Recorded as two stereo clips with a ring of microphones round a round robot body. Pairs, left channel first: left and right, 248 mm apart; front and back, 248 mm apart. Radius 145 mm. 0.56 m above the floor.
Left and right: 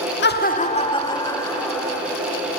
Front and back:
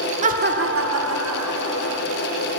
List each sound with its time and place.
0.2 s laughter: 125° left, 1.1 m; by 2.0 s 175° left, 3 m